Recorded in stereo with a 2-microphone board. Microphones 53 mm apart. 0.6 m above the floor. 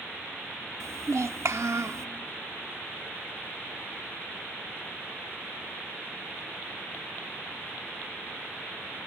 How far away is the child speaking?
About 0.6 m.